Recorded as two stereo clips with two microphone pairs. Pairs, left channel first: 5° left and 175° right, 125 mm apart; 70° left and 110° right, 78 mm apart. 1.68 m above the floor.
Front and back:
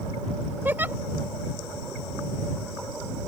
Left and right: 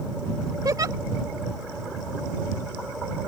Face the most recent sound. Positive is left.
turn(degrees=-105)